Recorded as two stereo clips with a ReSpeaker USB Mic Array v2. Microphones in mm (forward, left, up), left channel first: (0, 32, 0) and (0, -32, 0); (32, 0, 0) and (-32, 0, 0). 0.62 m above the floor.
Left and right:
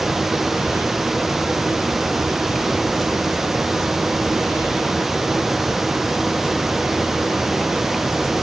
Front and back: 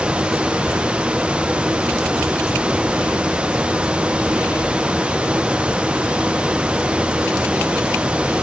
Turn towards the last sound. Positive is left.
No sound to turn to.